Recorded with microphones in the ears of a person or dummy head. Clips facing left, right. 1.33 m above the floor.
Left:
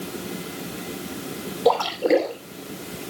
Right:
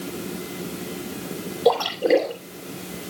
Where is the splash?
Centre (ahead or behind), 3 m.